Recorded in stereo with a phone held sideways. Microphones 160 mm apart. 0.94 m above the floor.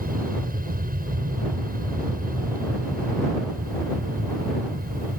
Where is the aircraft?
65° right (ahead or behind).